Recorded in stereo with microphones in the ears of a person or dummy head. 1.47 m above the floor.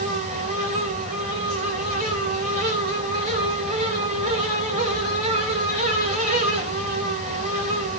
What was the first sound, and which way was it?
A fan, 40° right (ahead or behind).